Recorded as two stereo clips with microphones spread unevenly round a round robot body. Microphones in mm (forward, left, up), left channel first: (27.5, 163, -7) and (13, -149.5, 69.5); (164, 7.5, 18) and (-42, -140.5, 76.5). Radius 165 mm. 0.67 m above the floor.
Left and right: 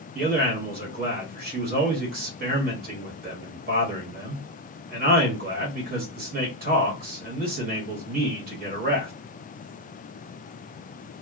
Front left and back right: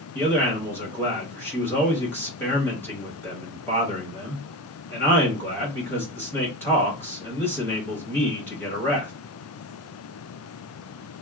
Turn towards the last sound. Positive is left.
turn(degrees=-25)